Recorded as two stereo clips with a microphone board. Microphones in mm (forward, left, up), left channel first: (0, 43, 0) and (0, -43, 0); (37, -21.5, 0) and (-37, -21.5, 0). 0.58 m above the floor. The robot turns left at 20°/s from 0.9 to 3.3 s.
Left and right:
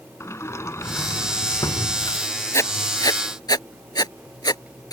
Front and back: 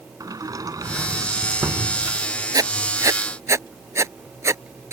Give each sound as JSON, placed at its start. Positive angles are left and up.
{"t": 0.2, "sound": "a sliding door", "azimuth_deg": 145}
{"t": 2.5, "sound": "writing", "azimuth_deg": 145}